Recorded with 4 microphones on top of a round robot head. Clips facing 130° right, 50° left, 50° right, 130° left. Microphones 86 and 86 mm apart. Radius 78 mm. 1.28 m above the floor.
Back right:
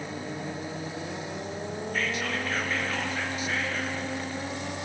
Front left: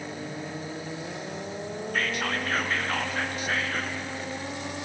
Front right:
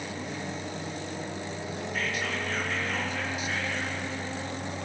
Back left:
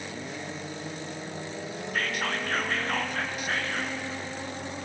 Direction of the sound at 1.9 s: 90° left.